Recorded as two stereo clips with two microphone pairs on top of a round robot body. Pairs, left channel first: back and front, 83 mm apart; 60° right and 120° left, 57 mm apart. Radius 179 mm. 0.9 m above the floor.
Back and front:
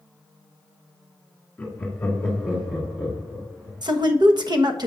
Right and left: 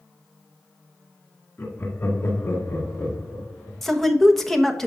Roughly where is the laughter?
Right.